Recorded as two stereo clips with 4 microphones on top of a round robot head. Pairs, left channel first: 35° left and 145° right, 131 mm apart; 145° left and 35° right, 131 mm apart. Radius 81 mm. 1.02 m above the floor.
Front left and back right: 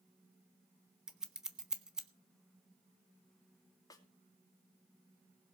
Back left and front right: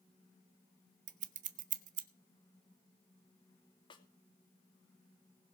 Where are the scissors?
60° right, 1.4 m.